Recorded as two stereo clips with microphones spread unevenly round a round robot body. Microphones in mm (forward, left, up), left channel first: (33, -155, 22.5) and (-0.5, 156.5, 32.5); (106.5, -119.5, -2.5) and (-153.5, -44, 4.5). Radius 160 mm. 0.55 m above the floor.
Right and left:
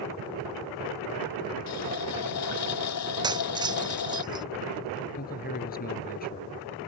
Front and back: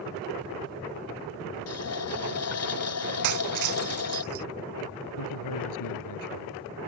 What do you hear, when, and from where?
1.7 s a running tap: 45° right
3.2 s breaking glass: 175° left
5.2 s a man speaking: 20° right